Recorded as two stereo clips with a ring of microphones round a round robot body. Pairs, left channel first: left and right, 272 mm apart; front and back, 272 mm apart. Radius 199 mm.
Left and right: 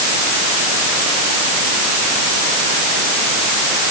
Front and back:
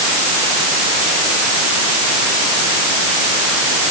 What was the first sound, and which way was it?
Only background noise.